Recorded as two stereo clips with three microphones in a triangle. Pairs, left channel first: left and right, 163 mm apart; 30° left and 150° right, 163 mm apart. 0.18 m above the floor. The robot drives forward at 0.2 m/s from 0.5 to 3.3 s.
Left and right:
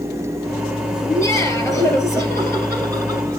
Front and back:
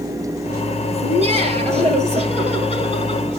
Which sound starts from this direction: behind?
Laughter, at 1.0 s.